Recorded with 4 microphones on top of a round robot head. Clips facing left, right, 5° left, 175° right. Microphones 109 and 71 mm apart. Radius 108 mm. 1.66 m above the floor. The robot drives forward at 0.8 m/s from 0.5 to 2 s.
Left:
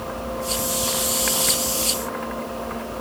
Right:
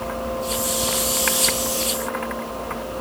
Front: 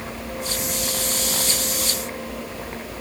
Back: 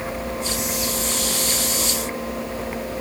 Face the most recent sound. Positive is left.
No sound to turn to.